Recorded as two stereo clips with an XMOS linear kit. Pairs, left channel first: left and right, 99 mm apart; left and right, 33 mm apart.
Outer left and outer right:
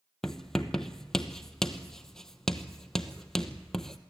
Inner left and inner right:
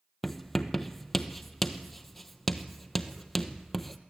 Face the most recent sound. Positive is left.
turn(degrees=5)  # may be behind; listen again after turning